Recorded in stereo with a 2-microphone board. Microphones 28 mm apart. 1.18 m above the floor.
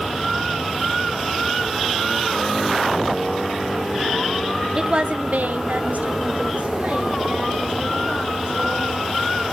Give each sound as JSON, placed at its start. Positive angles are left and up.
{"t": 4.8, "sound": "a woman speaking", "side_deg": -25, "distance_m": 0.9}